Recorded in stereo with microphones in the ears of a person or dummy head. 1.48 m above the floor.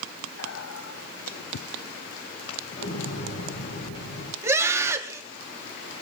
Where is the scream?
20° right (ahead or behind), 4 m.